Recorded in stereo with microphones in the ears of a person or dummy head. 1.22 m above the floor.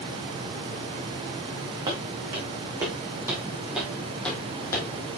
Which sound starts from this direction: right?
Footsteps, at 1.9 s.